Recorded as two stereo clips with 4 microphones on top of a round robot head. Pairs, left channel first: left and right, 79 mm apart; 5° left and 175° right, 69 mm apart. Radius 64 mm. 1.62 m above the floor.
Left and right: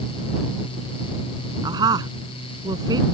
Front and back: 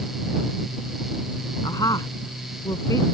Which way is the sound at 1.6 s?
50° right.